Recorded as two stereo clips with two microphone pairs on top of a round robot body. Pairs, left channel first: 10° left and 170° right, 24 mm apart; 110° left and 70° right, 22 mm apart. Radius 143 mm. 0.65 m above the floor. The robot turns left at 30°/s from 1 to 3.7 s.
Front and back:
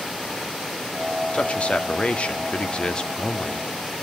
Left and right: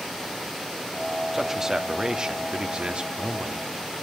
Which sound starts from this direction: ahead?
A man speaking, at 1.3 s.